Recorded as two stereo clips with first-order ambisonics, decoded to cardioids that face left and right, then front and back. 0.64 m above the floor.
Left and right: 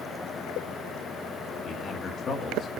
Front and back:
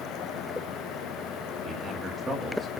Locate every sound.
1.6 s a man speaking: 130° left, 1.4 m